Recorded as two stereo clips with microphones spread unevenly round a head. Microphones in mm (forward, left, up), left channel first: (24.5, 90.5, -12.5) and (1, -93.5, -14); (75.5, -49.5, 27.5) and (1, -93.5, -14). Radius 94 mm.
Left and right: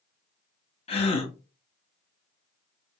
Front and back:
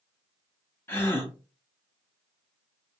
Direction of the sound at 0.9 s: 120° left.